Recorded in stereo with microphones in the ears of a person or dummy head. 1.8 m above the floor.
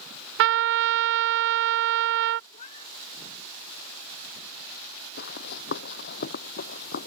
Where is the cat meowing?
40° left (ahead or behind).